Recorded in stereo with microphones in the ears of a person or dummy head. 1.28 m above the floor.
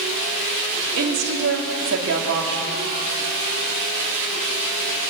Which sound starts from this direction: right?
A woman speaking, at 1.0 s.